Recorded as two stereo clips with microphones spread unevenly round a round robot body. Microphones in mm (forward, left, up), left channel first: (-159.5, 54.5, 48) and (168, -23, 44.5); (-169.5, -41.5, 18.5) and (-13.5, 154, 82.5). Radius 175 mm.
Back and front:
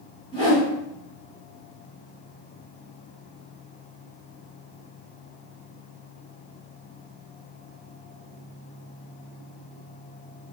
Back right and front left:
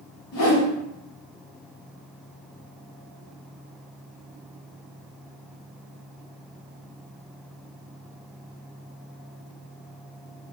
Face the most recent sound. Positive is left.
turn(degrees=-120)